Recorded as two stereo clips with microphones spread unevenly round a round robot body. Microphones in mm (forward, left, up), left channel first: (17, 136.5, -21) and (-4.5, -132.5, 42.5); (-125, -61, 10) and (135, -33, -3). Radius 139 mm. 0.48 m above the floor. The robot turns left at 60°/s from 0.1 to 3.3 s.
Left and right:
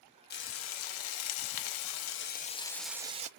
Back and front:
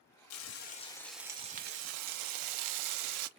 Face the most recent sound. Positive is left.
turn(degrees=-35)